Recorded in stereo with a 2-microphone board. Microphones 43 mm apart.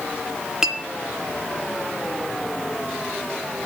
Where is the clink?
10° right (ahead or behind), 0.5 m.